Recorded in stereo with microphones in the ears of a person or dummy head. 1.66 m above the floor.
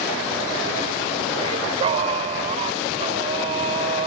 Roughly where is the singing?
Right.